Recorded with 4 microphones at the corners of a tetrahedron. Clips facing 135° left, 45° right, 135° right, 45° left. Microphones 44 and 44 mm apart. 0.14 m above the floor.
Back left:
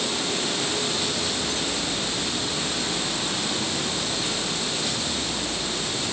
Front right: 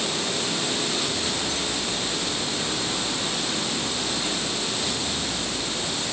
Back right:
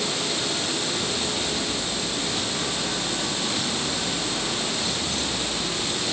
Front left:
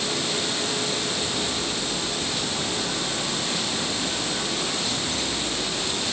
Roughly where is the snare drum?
I don't hear a snare drum.